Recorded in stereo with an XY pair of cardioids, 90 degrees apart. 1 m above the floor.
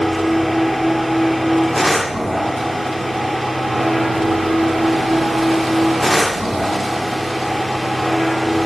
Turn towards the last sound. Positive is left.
turn(degrees=5)